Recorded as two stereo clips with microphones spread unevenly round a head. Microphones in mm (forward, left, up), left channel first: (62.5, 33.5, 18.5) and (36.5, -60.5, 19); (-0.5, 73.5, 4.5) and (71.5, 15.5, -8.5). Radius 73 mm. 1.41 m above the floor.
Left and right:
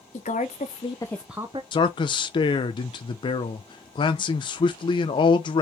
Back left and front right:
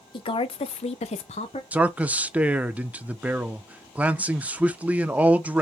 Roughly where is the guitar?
I don't hear a guitar.